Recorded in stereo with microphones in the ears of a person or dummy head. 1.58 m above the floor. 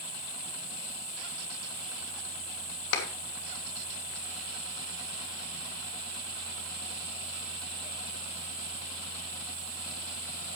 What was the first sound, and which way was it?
An insect, 5° right (ahead or behind).